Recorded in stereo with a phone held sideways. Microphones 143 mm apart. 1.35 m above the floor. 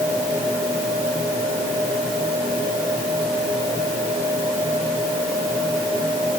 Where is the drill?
No drill in this recording.